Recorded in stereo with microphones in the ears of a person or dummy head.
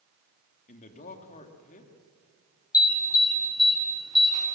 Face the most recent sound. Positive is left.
turn(degrees=20)  # may be behind; listen again after turning